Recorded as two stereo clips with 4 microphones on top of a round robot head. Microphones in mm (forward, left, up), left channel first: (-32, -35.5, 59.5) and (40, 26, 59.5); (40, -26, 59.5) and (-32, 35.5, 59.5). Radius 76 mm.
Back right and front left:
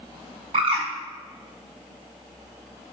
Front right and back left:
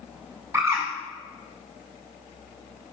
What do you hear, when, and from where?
0.5 s a bird: 70° left, 5 m